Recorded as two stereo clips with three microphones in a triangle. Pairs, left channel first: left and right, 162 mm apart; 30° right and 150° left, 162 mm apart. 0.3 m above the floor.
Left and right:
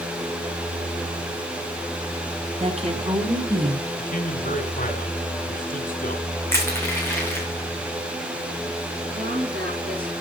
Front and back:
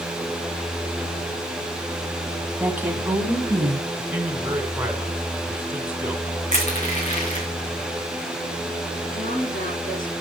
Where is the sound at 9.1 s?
65° right, 10 m.